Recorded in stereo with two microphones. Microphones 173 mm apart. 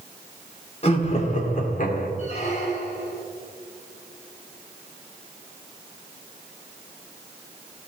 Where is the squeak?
40° left (ahead or behind), 2.5 m.